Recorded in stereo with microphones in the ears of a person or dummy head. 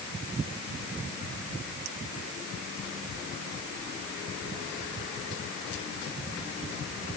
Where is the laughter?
I don't hear laughter.